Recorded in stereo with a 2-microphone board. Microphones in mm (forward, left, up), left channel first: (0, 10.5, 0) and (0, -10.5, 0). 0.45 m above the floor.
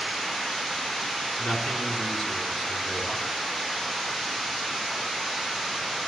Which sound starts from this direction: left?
A man speaking, at 1.4 s.